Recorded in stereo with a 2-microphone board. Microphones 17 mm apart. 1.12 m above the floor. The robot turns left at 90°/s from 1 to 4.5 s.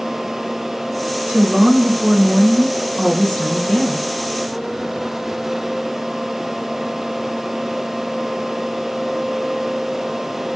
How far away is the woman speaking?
About 2.5 m.